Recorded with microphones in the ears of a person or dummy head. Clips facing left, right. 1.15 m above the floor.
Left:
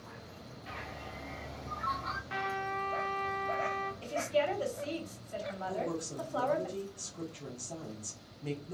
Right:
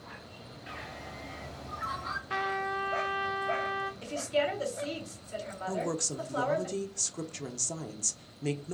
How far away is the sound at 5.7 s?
About 0.7 m.